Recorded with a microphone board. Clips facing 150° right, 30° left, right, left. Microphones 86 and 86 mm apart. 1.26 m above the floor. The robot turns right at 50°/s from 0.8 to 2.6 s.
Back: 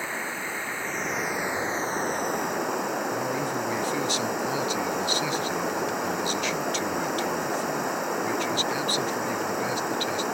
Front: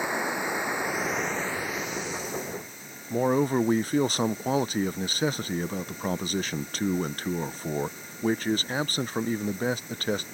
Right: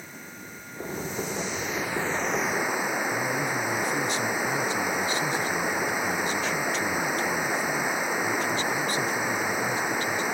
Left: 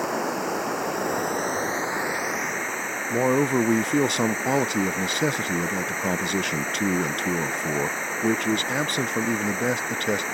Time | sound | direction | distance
0.0 | running water | 105° left | ?
3.1 | a man speaking | 70° left | ?